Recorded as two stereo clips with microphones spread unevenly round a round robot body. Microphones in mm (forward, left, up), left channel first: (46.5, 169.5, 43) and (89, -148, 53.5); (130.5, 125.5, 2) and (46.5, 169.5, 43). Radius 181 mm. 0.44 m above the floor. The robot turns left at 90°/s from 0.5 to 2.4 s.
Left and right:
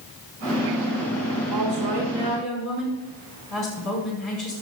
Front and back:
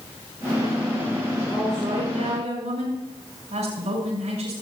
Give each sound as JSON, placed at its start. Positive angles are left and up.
{"t": 1.5, "sound": "a woman speaking", "azimuth_deg": -95, "distance_m": 5.5}